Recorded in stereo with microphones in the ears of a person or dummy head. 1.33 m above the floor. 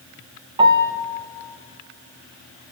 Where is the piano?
25° right (ahead or behind), 1.4 m.